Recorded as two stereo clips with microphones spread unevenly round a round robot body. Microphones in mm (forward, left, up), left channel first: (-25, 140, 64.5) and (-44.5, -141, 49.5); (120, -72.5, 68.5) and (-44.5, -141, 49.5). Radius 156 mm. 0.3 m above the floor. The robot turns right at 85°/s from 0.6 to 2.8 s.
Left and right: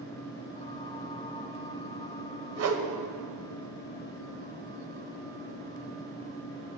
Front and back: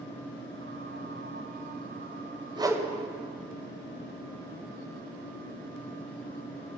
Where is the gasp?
No gasp in this recording.